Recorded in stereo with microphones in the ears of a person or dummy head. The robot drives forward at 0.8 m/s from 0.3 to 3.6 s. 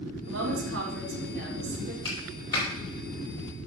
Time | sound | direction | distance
0.3 | a woman speaking | 75° right (ahead or behind) | 3 m
2.0 | a clap | 25° left (ahead or behind) | 5.5 m